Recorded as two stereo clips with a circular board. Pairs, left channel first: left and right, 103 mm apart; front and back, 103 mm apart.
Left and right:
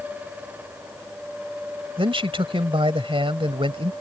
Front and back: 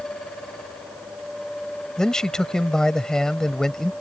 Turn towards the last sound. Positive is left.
turn(degrees=-80)